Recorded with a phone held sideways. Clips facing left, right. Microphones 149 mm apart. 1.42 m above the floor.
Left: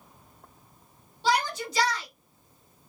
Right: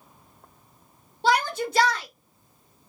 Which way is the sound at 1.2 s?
55° right (ahead or behind).